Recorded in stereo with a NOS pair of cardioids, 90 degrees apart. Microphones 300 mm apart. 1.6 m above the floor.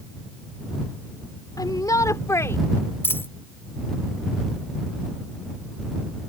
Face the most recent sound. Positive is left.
turn(degrees=10)